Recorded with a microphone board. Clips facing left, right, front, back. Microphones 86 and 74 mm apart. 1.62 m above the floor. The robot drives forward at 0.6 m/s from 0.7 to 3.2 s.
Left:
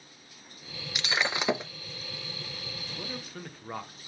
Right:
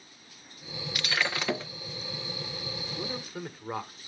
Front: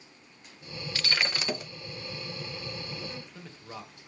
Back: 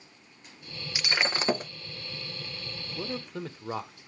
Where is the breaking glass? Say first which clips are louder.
Left 1 dB, back 2 dB; 120° left, 0.8 m; by 1.7 s 155° left, 1.0 m.